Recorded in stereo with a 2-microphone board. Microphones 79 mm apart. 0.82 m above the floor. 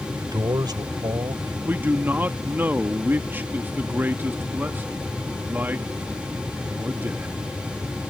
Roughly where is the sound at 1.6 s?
Right.